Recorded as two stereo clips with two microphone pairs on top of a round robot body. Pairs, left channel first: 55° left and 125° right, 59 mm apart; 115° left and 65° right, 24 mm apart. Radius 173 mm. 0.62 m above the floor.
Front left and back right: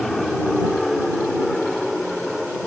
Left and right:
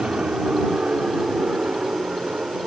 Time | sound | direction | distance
0.0 | an aircraft | 35° right | ?